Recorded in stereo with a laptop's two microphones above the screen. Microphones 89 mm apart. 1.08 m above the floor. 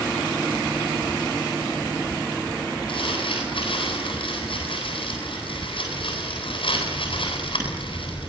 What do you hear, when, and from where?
2.9 s crumpling: 70° left (ahead or behind), 9 m